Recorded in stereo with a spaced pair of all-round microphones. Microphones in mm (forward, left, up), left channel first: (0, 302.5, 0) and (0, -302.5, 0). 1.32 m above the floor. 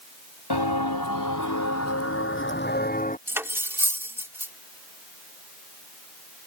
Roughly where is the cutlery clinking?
Centre.